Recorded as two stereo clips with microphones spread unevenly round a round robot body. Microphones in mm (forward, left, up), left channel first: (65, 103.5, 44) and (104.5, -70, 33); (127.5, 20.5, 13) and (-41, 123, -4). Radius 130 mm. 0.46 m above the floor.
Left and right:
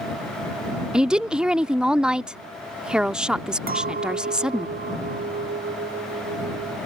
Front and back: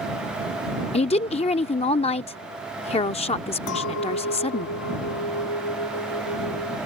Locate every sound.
0.9 s a woman speaking: straight ahead
3.7 s a clink: 45° right